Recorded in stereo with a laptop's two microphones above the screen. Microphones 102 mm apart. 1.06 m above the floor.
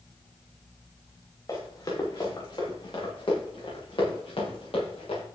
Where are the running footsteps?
40° left (ahead or behind), 7 m; by 5.2 s 70° left (ahead or behind), 9 m.